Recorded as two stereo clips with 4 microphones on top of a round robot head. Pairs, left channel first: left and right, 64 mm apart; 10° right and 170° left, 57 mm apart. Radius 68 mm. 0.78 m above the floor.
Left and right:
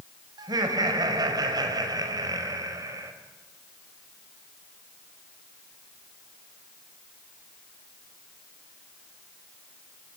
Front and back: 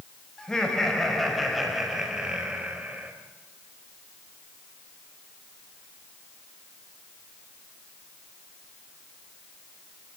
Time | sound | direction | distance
0.4 | laughter | 90° right | 5.5 m